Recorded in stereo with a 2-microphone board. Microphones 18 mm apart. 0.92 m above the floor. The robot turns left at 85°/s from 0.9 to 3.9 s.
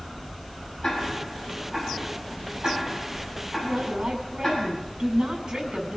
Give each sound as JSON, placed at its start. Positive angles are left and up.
{"t": 0.8, "sound": "ticking", "side_deg": 50, "distance_m": 8.5}
{"t": 3.6, "sound": "a woman speaking", "side_deg": -75, "distance_m": 9.0}